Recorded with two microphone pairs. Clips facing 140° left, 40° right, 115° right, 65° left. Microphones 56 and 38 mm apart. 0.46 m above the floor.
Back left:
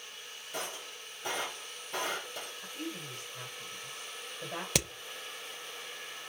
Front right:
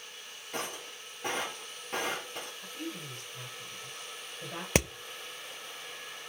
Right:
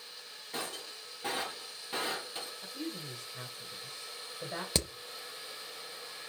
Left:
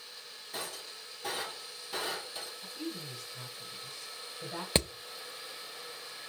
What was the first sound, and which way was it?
Breaking glass, 55° right.